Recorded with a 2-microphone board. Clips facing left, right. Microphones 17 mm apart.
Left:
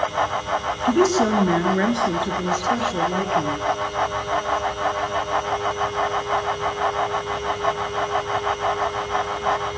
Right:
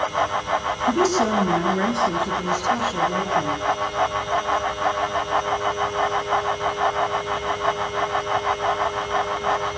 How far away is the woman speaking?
About 2.5 m.